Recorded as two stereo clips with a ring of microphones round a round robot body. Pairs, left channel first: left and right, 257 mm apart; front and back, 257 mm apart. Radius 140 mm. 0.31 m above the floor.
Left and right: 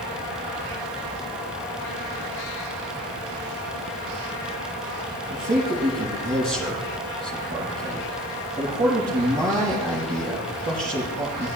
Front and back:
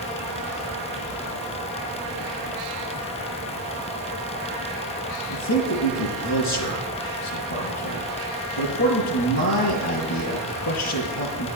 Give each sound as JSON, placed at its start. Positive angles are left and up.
{"t": 5.3, "sound": "a man speaking", "azimuth_deg": -20, "distance_m": 4.5}